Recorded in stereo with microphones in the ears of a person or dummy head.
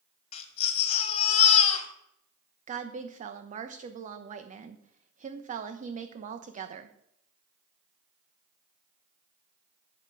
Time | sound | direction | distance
0.3 | a baby crying | 40° left (ahead or behind) | 1.4 m
2.7 | a woman speaking | 45° right (ahead or behind) | 0.9 m